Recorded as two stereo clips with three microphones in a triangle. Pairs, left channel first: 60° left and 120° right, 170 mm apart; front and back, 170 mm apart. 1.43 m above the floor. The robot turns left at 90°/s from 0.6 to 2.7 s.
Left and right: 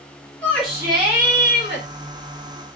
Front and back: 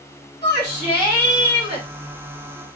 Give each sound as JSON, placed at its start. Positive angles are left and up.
{"t": 0.4, "sound": "a shout", "azimuth_deg": -25, "distance_m": 3.0}